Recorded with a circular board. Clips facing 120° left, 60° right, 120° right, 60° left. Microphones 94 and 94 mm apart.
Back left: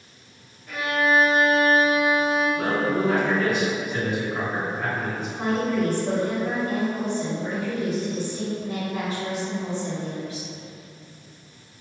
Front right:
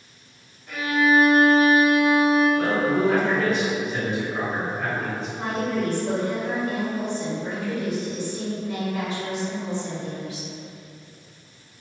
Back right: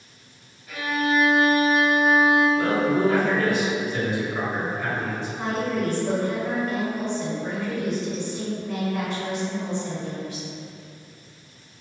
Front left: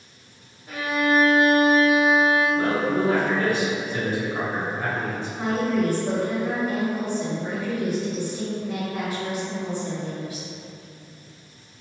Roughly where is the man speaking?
Ahead left.